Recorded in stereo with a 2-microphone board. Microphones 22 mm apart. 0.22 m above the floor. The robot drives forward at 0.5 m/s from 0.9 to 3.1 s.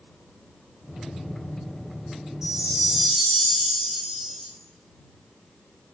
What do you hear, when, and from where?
2.4 s a chime: 25° right (ahead or behind), 0.5 m; by 4.5 s 20° right (ahead or behind), 0.7 m